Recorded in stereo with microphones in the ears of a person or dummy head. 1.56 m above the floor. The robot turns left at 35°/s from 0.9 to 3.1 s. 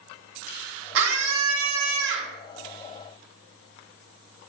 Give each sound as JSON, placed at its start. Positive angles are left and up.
{"t": 0.9, "sound": "a scream", "azimuth_deg": -75, "distance_m": 1.7}